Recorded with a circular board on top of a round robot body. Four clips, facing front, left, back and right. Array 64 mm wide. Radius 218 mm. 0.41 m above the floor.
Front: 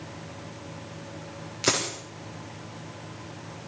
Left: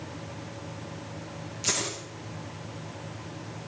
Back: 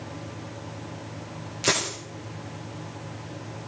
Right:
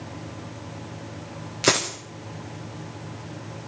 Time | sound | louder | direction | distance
1.6 | a dropped coin | right 10 dB, back 1 dB | 80° right | 4 m